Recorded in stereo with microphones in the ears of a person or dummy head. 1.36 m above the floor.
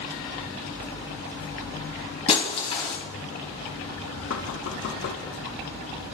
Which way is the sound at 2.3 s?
30° left (ahead or behind).